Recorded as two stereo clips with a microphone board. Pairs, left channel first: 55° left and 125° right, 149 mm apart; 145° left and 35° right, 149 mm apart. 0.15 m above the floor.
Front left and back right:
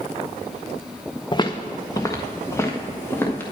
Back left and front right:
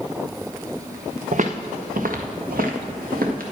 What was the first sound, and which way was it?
Footsteps, straight ahead.